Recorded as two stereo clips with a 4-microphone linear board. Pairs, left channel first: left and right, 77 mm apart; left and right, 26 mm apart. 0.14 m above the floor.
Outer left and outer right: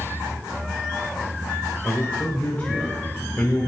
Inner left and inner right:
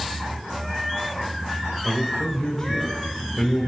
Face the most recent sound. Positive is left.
turn(degrees=30)  # may be behind; listen again after turning